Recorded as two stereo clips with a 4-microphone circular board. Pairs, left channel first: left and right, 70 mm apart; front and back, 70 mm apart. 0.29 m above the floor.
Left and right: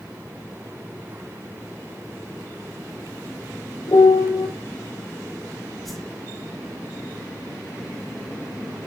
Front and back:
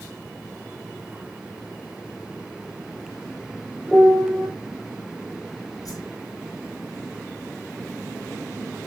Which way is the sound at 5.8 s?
Straight ahead.